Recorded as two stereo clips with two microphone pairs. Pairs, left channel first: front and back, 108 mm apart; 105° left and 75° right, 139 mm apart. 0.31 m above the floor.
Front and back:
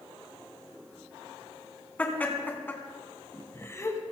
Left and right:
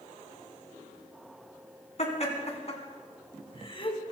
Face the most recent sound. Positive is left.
turn(degrees=60)